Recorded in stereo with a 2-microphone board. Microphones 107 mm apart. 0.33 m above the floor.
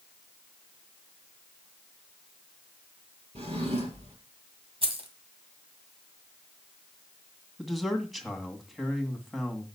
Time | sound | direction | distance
3.4 | a drawer | 70° right (ahead or behind) | 3.5 m
4.8 | keys jangling | 60° right (ahead or behind) | 1.7 m
7.6 | a man speaking | centre (ahead or behind) | 1.9 m